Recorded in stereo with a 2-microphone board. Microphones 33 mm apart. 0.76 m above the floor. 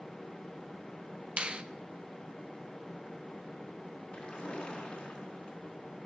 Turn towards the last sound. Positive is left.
turn(degrees=30)  # may be behind; listen again after turning